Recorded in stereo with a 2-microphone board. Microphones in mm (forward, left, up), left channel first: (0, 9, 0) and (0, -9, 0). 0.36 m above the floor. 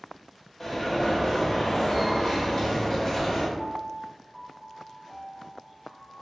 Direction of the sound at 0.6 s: 20° left (ahead or behind).